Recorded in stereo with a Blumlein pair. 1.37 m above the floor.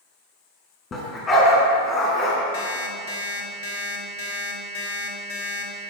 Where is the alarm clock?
50° left, 2.5 m.